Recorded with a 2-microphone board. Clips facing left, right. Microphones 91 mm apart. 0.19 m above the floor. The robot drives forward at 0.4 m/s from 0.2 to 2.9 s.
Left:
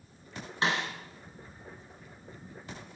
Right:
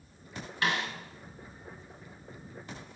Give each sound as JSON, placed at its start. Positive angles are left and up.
{"t": 0.6, "sound": "a snare drum", "side_deg": 25, "distance_m": 1.2}